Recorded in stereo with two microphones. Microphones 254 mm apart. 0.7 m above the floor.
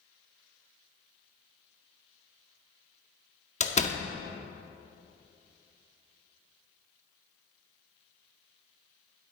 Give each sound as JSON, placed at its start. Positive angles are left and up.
{"t": 3.6, "sound": "a door slam", "side_deg": 30, "distance_m": 0.6}